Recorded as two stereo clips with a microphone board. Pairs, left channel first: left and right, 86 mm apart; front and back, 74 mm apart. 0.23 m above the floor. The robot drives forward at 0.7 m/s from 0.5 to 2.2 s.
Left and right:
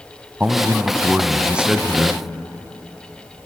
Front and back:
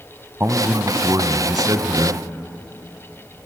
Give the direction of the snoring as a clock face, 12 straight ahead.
I don't hear snoring.